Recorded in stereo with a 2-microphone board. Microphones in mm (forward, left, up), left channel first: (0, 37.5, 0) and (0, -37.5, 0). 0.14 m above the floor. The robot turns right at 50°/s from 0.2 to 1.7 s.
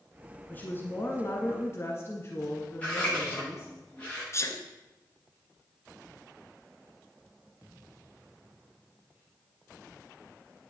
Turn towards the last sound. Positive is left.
turn(degrees=40)  # may be behind; listen again after turning